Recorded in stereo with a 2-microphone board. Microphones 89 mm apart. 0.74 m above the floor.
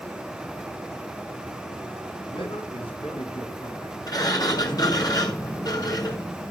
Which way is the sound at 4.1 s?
45° left (ahead or behind).